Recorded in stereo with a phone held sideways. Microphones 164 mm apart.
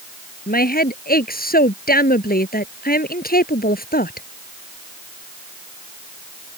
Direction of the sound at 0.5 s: 65° left (ahead or behind).